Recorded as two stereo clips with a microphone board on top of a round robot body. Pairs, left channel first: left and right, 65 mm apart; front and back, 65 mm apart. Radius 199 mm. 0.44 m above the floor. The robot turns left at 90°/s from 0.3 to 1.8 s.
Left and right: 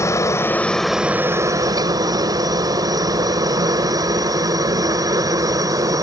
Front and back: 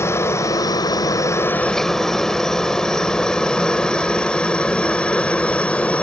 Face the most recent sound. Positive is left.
turn(degrees=-70)